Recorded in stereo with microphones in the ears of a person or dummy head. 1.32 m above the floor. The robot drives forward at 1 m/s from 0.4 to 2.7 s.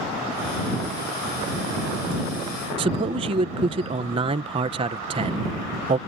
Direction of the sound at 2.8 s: 25° right (ahead or behind).